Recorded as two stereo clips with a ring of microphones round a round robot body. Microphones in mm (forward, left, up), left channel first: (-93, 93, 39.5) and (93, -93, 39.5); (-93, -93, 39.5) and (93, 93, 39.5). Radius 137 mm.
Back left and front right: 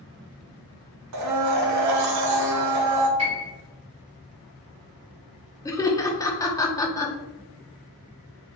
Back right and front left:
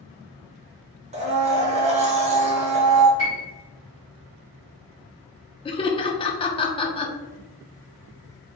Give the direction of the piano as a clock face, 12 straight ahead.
11 o'clock.